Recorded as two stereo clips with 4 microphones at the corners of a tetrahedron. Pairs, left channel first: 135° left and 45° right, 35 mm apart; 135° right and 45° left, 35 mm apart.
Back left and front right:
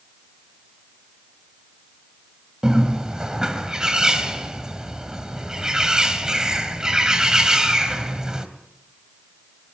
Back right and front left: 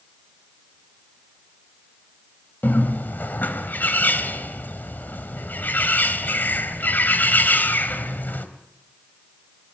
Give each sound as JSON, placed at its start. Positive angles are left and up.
{"t": 2.6, "sound": "a bird", "azimuth_deg": -110, "distance_m": 3.0}